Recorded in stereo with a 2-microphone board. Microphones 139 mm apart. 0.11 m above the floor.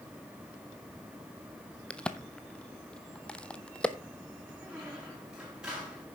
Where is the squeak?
5° right (ahead or behind), 5 m.